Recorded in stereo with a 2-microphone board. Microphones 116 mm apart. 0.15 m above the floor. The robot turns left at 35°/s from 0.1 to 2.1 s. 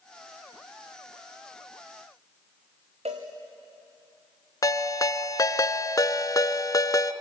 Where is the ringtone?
35° left (ahead or behind), 0.8 m.